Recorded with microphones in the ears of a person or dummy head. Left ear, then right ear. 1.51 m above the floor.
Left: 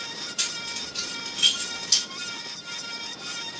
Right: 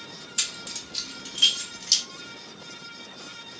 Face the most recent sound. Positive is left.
turn(degrees=-75)  # may be behind; listen again after turning